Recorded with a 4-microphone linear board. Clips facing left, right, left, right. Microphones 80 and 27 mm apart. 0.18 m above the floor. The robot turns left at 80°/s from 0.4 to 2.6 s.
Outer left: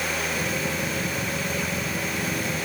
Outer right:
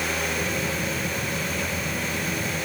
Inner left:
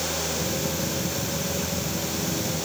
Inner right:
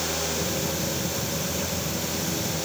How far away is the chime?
I don't hear a chime.